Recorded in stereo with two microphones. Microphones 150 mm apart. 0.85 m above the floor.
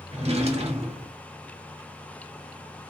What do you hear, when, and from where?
0.1 s a drawer: 45° right (ahead or behind), 0.6 m